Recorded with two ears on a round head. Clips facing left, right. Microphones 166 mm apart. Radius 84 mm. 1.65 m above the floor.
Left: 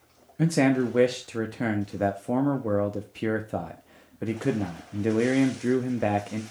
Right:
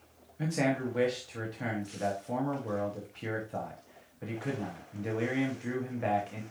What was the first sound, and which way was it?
A man speaking, 60° left (ahead or behind).